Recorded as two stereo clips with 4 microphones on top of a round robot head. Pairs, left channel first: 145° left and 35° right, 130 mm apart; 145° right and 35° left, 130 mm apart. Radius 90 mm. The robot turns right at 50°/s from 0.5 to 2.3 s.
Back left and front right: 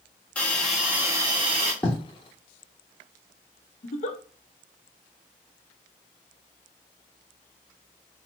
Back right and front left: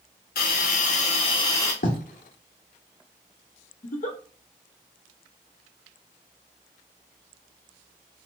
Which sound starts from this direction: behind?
A giggle, at 3.8 s.